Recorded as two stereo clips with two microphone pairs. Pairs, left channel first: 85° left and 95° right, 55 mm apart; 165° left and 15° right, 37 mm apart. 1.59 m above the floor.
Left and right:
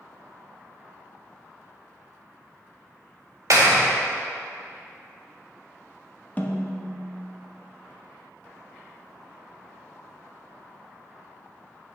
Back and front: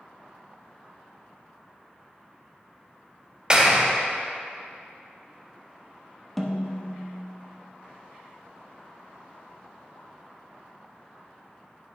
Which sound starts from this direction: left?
A snare drum, at 6.4 s.